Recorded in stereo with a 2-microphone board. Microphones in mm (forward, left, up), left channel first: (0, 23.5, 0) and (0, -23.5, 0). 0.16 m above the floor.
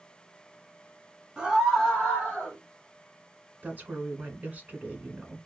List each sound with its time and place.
1.4 s a scream: 20° right (ahead or behind), 1.0 m; by 2.6 s 25° left (ahead or behind), 1.7 m
3.6 s a woman speaking: 35° right (ahead or behind), 1.3 m